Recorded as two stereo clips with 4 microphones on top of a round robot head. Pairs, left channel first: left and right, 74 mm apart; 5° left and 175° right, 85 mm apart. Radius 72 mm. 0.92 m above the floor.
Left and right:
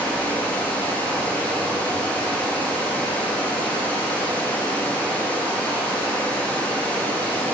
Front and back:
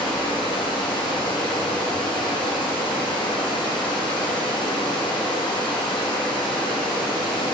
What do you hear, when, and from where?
0.0 s running water: 20° left, 1.4 m